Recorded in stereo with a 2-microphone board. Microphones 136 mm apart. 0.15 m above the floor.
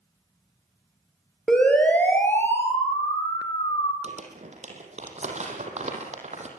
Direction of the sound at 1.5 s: 5° left (ahead or behind).